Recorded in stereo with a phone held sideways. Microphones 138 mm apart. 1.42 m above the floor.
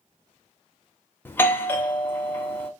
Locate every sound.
1.2 s a doorbell: 15° left (ahead or behind), 0.6 m